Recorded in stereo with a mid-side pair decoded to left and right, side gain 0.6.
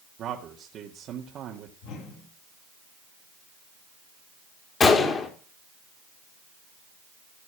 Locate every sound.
0.2 s a man speaking: 55° right, 1.9 m
1.8 s a whoosh: 70° left, 6 m
4.8 s a gunshot: 35° left, 3 m